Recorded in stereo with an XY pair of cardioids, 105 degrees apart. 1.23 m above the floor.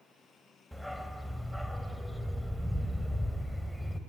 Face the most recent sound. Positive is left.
turn(degrees=5)